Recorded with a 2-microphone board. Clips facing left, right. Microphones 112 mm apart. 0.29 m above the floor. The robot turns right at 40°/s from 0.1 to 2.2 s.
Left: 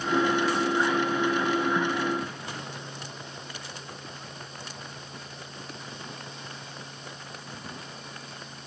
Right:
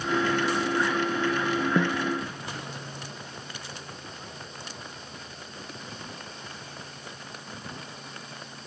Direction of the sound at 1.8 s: 80° right.